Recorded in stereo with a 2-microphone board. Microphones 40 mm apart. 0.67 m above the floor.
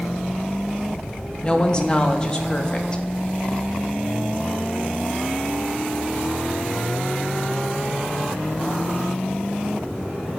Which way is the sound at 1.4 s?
25° left (ahead or behind).